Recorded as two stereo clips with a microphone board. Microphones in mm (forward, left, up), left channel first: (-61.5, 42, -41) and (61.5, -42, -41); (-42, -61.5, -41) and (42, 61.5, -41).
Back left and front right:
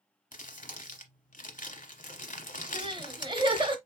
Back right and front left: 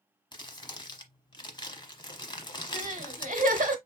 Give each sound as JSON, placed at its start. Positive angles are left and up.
{"t": 0.3, "sound": "crumpling", "azimuth_deg": 175, "distance_m": 0.9}
{"t": 2.7, "sound": "crying", "azimuth_deg": 25, "distance_m": 0.8}